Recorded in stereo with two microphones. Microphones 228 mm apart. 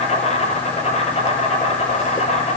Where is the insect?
30° left (ahead or behind), 7 m.